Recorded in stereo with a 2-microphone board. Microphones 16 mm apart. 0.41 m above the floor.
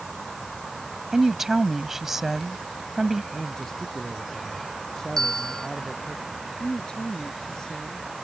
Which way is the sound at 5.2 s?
30° left (ahead or behind).